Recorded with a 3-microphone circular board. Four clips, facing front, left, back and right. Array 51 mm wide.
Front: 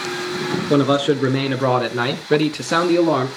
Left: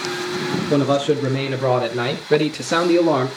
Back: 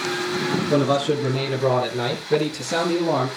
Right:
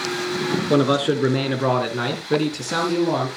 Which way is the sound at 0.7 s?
40° right.